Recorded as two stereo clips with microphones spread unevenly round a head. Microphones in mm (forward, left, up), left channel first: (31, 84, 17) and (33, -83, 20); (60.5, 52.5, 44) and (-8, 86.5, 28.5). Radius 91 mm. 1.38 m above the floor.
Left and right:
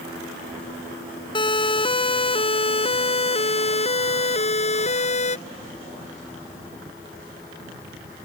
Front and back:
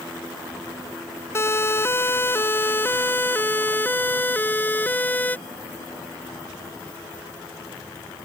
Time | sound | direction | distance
1.4 | a siren | 30° left | ?